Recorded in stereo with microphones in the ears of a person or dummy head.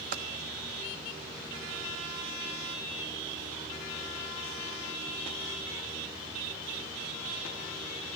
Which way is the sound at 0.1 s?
25° right (ahead or behind).